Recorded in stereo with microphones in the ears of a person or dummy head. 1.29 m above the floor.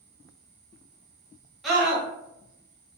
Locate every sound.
1.6 s a scream: 5° right (ahead or behind), 1.1 m